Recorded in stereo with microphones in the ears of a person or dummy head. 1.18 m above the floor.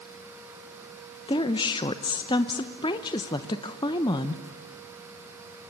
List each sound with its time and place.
1.3 s a woman speaking: 25° left (ahead or behind), 0.8 m